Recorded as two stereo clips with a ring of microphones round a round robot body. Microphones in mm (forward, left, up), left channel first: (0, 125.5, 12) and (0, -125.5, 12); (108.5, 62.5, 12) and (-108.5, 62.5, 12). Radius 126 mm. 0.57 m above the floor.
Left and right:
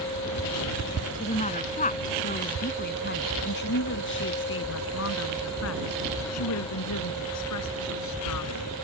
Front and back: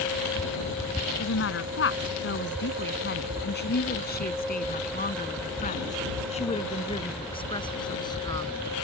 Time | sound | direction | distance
1.2 | a woman speaking | 25° left | ?